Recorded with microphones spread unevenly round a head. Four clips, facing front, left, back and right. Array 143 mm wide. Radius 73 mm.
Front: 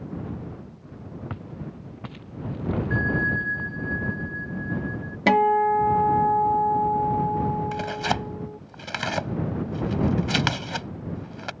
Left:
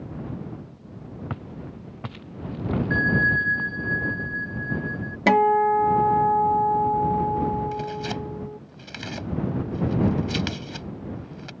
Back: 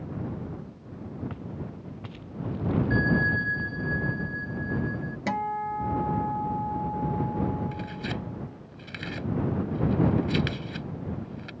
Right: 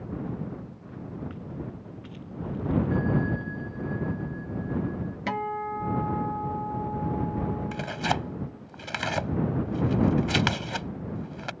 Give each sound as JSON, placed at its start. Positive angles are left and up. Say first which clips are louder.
{"t": 1.3, "sound": "footsteps", "louder": "left 1 dB, front 1 dB", "azimuth_deg": 70}
{"t": 2.9, "sound": "a bell", "louder": "left 4 dB, even", "azimuth_deg": 95}
{"t": 5.3, "sound": "a guitar", "louder": "left 14 dB, front 11 dB", "azimuth_deg": 55}
{"t": 7.7, "sound": "tearing paper", "louder": "even, front 8 dB", "azimuth_deg": -35}